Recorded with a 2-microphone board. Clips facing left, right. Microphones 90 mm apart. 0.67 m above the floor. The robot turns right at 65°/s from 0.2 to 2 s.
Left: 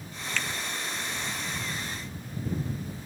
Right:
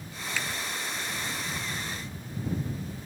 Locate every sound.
0.4 s a finger snap: 10° right (ahead or behind); by 0.5 s 15° right (ahead or behind)